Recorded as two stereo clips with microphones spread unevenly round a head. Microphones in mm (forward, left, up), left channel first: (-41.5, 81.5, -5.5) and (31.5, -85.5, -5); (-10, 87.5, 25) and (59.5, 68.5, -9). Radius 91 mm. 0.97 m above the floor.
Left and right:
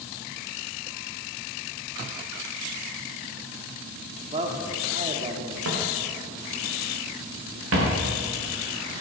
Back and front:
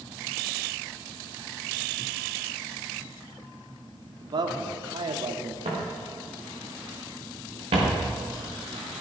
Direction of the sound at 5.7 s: 60° right.